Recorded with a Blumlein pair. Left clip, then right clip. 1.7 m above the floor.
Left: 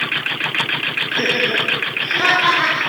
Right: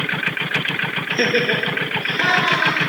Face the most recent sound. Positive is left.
turn(degrees=25)